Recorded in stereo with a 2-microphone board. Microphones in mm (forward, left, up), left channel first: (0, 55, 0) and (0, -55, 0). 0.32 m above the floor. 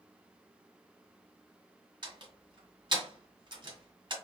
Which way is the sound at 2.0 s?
45° right (ahead or behind).